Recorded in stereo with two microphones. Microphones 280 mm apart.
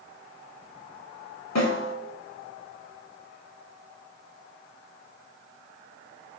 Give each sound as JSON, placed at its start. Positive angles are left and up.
{"t": 1.6, "sound": "a snare drum", "side_deg": 75, "distance_m": 0.7}